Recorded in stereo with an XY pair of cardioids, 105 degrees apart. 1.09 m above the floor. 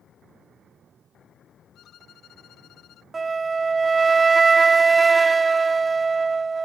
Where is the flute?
30° right.